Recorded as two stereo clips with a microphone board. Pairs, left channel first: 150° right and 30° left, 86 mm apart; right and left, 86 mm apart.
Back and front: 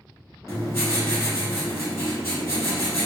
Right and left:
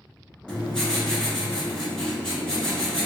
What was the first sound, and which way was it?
Writing, 165° right.